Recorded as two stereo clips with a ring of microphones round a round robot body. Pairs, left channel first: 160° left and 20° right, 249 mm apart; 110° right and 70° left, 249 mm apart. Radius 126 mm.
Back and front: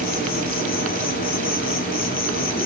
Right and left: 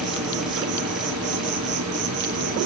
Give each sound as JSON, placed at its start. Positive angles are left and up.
{"t": 0.0, "sound": "an insect", "azimuth_deg": 100, "distance_m": 2.0}